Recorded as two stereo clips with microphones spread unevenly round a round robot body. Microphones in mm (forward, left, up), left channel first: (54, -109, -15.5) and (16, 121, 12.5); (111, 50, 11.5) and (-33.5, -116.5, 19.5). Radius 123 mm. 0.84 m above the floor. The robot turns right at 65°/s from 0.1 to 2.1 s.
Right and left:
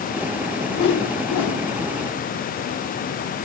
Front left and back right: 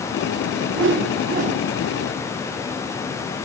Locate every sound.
0.7 s a whoosh: 130° right, 0.6 m; by 1.7 s 70° right, 0.6 m